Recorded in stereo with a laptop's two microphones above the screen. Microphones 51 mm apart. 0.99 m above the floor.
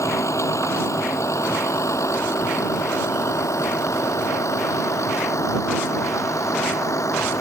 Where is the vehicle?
85° left.